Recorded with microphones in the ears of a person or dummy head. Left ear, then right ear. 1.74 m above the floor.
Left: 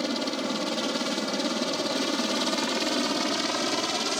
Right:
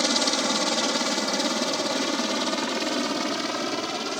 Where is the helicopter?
35° right (ahead or behind); by 4.2 s 10° left (ahead or behind).